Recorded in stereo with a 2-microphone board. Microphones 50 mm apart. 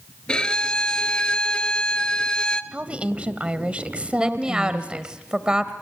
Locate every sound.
0.3 s a violin: 15° left (ahead or behind), 0.9 m
2.7 s a woman speaking: 25° right (ahead or behind), 1.3 m
4.2 s a woman speaking: 15° right (ahead or behind), 1.1 m